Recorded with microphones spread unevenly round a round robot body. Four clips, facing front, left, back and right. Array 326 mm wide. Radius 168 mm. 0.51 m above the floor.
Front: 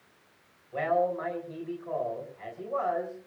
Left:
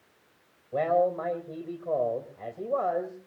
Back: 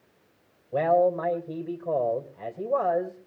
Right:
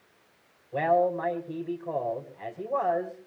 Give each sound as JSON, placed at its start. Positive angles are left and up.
{"t": 0.7, "sound": "a man speaking", "azimuth_deg": 165, "distance_m": 3.0}